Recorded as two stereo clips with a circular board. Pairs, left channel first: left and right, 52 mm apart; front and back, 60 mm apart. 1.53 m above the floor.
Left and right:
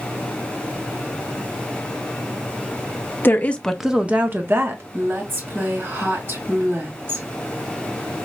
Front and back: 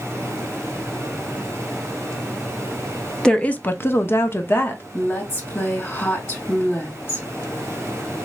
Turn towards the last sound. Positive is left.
turn(degrees=-45)